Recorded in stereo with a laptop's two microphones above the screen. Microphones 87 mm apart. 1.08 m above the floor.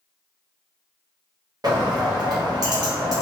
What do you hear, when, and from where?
1.6 s a bird: 50° right (ahead or behind), 0.9 m